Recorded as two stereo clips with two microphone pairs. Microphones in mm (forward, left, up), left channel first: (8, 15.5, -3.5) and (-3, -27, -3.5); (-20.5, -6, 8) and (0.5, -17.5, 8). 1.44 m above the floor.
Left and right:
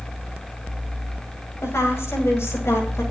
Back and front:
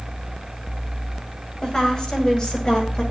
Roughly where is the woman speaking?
Left.